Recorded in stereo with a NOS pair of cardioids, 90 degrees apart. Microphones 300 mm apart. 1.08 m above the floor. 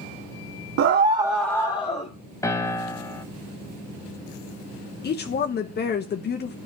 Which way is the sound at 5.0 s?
35° left.